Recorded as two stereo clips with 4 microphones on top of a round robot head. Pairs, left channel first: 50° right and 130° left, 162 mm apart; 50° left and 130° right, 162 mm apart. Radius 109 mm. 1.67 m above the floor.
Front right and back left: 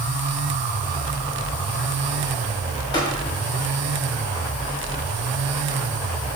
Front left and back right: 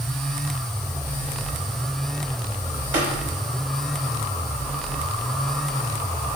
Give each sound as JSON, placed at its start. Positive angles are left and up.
{"t": 2.9, "sound": "tapping", "azimuth_deg": -110, "distance_m": 4.0}